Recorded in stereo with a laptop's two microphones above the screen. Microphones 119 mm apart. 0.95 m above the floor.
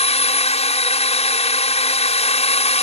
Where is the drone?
65° left (ahead or behind).